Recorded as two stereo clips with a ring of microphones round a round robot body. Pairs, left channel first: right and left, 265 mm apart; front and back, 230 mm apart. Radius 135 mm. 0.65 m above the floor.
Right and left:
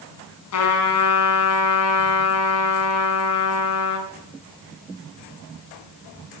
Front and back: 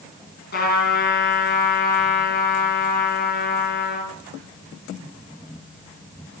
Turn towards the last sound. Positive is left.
turn(degrees=-60)